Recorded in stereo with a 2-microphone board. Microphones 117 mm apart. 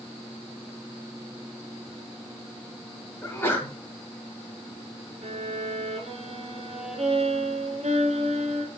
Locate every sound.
3.2 s a sneeze: 20° left (ahead or behind), 3 m
5.2 s a violin: 70° right (ahead or behind), 1.7 m